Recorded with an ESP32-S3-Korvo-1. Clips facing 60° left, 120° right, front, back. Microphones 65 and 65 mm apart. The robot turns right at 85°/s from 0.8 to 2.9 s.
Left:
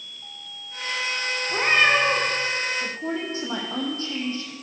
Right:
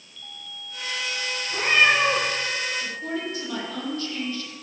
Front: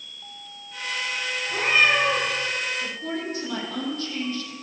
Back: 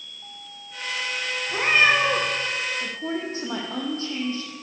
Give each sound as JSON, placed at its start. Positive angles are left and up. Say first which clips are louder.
{"t": 1.5, "sound": "a cat meowing", "louder": "even, back 1 dB", "azimuth_deg": 95, "distance_m": 3.5}
{"t": 2.8, "sound": "a woman speaking", "louder": "left 1 dB, back 1 dB", "azimuth_deg": 110, "distance_m": 3.0}